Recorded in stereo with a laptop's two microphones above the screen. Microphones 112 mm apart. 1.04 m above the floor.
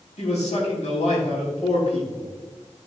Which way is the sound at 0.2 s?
80° left.